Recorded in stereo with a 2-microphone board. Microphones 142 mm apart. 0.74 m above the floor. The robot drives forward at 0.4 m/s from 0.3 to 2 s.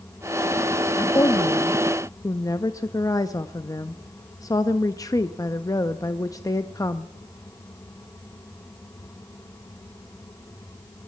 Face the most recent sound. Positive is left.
turn(degrees=25)  # may be behind; listen again after turning